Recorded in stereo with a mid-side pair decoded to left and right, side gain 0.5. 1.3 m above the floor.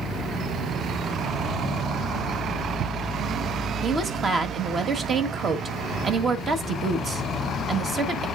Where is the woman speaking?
45° right, 1.5 m.